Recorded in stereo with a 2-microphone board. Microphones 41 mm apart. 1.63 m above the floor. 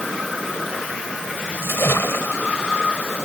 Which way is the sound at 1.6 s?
80° left.